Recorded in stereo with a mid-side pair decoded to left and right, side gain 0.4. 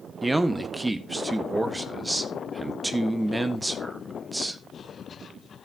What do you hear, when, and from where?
0.2 s a man speaking: 15° right, 1.3 m